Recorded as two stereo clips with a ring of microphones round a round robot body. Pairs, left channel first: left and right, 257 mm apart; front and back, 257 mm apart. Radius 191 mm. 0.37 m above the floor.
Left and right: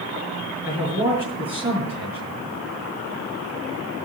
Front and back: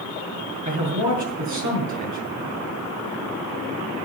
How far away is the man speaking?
About 6.5 m.